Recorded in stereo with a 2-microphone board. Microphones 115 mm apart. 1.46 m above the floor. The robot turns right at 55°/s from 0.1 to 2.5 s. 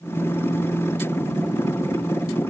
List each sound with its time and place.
Only background noise.